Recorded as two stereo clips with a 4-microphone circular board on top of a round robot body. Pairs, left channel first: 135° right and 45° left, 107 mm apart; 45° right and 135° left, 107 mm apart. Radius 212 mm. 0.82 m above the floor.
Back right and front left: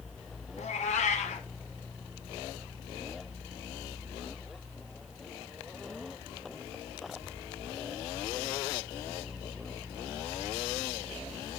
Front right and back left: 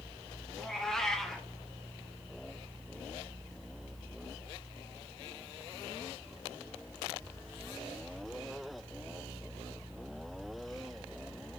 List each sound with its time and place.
0.6 s a cat meowing: 130° right, 1.3 m